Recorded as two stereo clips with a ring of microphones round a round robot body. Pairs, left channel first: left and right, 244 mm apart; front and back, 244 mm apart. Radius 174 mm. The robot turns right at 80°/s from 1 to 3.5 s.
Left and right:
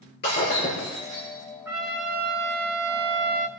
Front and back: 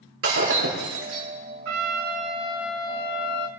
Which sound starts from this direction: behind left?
Breaking glass, at 0.2 s.